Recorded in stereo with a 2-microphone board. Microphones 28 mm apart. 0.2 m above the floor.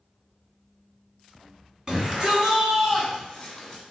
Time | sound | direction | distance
1.9 | a shout | 25° right (ahead or behind) | 2.0 m